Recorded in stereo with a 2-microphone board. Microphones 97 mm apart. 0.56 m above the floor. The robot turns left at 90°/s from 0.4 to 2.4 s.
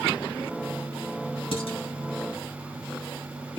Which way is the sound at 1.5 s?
80° left.